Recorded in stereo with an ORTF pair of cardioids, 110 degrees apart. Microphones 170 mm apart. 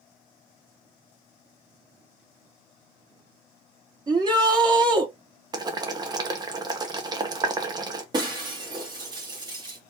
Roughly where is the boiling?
Ahead right.